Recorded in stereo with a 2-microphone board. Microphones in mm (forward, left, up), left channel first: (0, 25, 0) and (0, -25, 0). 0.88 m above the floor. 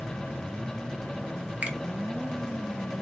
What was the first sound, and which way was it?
A finger snap, 25° right (ahead or behind).